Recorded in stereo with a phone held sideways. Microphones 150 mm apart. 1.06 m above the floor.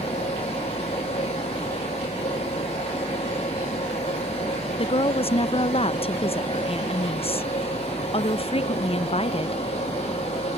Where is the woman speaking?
40° left (ahead or behind).